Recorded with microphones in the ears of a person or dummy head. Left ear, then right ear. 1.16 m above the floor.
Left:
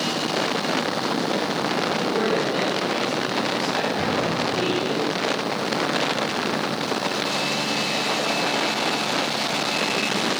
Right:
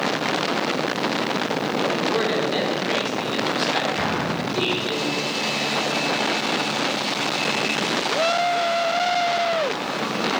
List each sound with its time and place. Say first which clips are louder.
2.0 s a man speaking: even; 35° right (ahead or behind), 4 m
4.0 s an explosion: left 1 dB; 60° right (ahead or behind), 4.5 m